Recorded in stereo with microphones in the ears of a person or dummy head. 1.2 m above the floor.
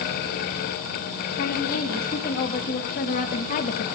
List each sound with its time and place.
1.4 s a woman speaking: 50° left (ahead or behind), 1.8 m; by 3.9 s 40° left (ahead or behind), 0.5 m